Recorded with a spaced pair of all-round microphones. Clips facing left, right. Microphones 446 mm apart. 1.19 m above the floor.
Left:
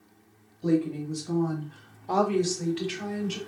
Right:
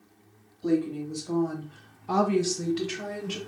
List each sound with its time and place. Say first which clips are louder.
0.6 s a woman speaking: left 1 dB; 50° left (ahead or behind), 1.0 m; by 3.4 s 70° right (ahead or behind), 1.1 m